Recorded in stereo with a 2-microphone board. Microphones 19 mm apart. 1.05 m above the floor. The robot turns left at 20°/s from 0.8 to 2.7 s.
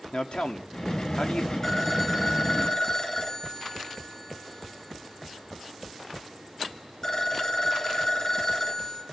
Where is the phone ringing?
20° left (ahead or behind), 4.5 m; by 9.0 s 40° left (ahead or behind), 4.5 m.